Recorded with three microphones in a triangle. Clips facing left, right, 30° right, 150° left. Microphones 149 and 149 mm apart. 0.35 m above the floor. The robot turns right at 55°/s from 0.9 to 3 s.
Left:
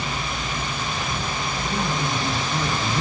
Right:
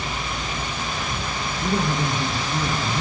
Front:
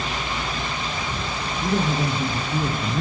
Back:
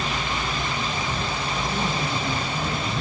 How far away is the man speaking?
About 6.5 m.